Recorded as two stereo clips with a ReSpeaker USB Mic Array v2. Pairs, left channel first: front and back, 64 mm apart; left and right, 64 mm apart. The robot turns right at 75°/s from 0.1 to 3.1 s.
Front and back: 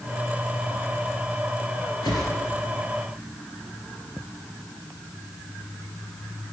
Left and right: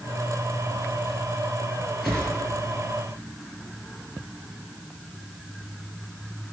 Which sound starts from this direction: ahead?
A whoosh, at 2.0 s.